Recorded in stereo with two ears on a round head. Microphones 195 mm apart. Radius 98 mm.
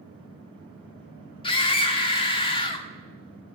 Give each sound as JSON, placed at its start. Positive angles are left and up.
{"t": 1.4, "sound": "a scream", "side_deg": 25, "distance_m": 1.5}